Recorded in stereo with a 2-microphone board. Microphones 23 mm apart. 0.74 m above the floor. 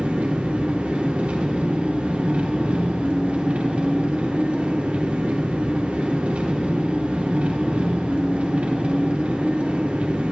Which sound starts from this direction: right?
An engine running, at 0.0 s.